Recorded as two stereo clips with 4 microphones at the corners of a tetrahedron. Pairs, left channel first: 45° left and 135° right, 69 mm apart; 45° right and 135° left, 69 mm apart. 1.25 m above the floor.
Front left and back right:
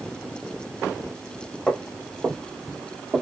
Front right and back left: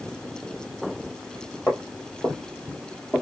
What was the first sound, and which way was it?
Footsteps, 50° right.